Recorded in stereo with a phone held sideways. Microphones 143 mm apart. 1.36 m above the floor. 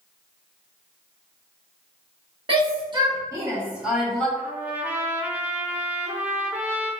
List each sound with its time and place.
2.5 s a shout: 40° right (ahead or behind), 1.4 m; by 4.3 s 5° left (ahead or behind), 1.0 m
4.4 s a trumpet: 10° right (ahead or behind), 0.7 m